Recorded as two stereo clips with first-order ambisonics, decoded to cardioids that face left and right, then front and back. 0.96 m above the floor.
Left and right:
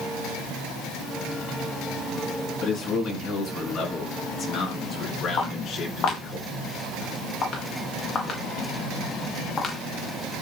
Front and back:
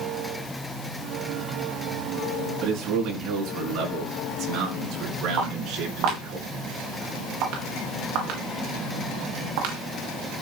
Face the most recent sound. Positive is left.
turn(degrees=155)